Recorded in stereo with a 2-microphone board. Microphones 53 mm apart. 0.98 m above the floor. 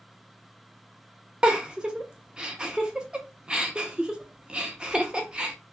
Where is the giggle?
15° right (ahead or behind), 0.5 m.